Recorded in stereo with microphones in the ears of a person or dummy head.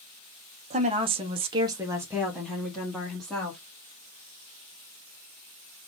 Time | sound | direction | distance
0.7 | a woman speaking | 30° right (ahead or behind) | 0.8 m